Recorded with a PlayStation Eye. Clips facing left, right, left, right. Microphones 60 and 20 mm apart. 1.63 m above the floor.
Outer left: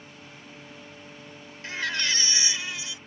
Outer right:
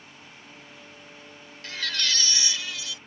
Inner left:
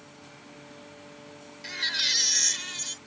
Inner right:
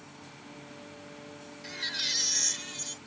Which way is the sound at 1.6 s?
25° left (ahead or behind).